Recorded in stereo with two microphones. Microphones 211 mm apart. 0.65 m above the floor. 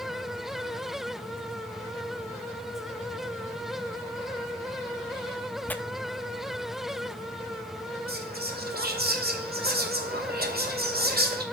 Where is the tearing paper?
10° left (ahead or behind), 0.7 m.